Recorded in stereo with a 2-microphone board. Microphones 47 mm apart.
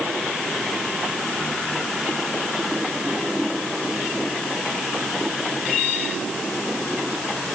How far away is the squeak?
No squeak in this recording.